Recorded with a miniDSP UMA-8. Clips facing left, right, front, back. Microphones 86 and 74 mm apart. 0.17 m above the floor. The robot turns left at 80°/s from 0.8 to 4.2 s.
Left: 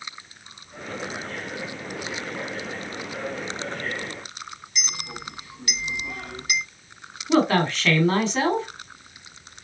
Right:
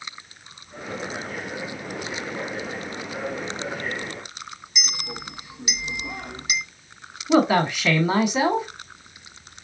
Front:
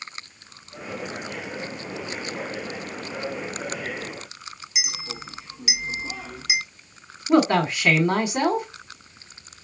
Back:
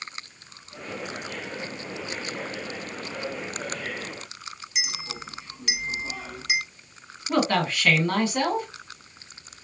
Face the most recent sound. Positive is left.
turn(degrees=-30)